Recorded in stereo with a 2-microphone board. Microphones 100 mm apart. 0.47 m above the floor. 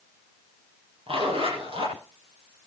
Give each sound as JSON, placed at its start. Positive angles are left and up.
{"t": 1.1, "sound": "a zipper", "side_deg": -80, "distance_m": 8.0}